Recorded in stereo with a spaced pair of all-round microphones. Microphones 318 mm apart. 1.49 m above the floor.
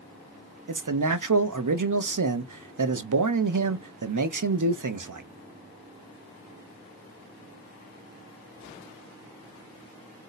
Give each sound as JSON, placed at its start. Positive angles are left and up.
{"t": 0.7, "sound": "a man speaking", "side_deg": -80, "distance_m": 0.6}